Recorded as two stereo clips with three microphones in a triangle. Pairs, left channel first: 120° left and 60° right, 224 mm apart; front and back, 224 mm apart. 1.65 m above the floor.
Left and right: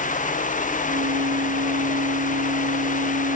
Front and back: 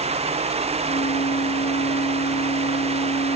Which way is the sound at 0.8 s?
45° right.